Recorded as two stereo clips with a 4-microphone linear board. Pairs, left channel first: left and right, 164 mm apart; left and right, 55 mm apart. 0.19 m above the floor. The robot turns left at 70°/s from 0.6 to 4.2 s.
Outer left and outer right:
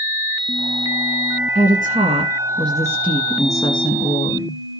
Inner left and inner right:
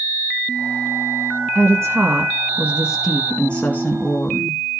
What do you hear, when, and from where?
1.6 s a woman speaking: 65° right, 1.6 m; by 4.6 s 110° left, 1.6 m